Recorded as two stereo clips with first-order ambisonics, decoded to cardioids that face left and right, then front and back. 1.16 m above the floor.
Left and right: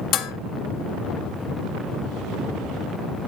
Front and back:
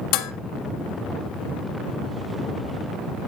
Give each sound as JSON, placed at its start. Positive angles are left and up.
{"t": 0.1, "sound": "dishes clattering", "azimuth_deg": 35, "distance_m": 0.8}